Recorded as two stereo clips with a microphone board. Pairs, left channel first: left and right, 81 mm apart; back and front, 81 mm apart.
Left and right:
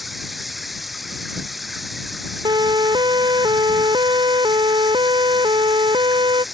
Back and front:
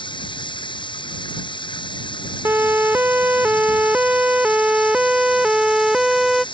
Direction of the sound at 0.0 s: Straight behind.